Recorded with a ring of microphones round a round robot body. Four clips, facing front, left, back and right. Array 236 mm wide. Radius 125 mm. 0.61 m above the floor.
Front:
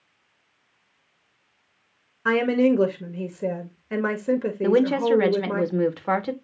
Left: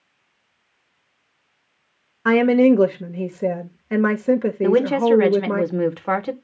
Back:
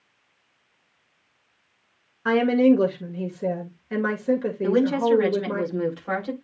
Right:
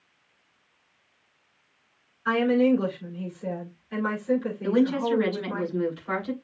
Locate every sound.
2.2 s a woman speaking: 85° left, 2 m
4.6 s a woman speaking: 60° left, 2 m